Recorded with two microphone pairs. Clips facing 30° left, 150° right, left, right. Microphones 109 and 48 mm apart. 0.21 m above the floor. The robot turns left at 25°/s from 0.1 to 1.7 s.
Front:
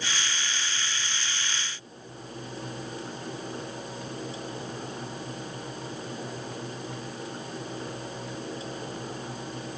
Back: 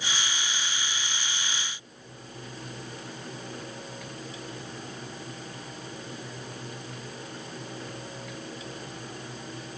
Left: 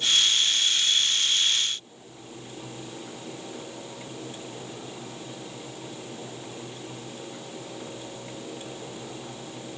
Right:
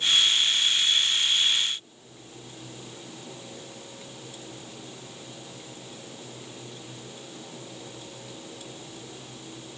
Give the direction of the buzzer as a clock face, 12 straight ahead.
No buzzer in this recording.